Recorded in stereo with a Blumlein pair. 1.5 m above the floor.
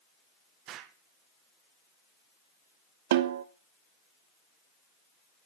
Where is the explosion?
35° right, 1.3 m.